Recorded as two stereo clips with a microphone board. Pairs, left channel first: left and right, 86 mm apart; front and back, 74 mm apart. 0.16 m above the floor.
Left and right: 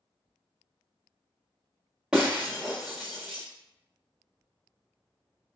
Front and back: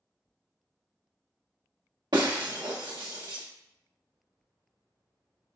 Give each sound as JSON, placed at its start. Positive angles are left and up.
{"t": 2.1, "sound": "breaking glass", "azimuth_deg": -170, "distance_m": 1.2}